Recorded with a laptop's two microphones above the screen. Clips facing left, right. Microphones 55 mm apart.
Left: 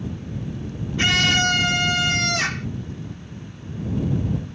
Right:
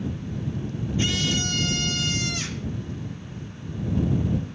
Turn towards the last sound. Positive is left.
turn(degrees=80)